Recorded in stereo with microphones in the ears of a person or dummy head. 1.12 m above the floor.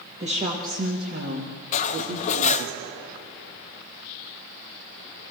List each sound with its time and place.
0.2 s a woman speaking: 30° right (ahead or behind), 1.3 m; by 2.7 s 70° right (ahead or behind), 2 m
1.7 s cutlery clinking: 40° left (ahead or behind), 0.7 m